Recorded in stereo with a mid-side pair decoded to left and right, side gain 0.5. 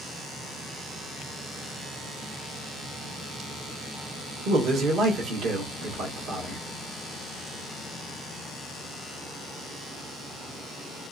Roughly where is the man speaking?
Ahead right.